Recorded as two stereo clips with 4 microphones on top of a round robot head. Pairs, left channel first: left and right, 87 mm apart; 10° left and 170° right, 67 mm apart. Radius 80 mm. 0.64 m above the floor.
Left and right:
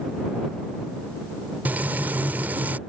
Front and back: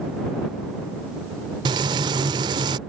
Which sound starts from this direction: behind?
Frying, at 1.6 s.